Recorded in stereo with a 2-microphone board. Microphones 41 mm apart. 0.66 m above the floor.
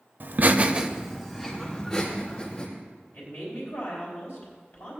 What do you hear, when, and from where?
0.2 s laughter: 50° right (ahead or behind), 0.8 m; by 2.7 s 25° left (ahead or behind), 2.5 m
3.1 s a woman speaking: 70° left (ahead or behind), 4 m